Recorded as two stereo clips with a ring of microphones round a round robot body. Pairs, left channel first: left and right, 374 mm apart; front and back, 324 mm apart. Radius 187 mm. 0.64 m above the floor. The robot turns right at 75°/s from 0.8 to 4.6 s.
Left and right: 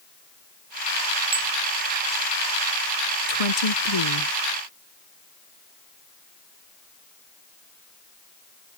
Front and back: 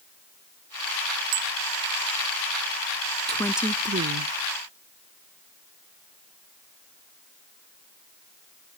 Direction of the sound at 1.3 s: 165° right.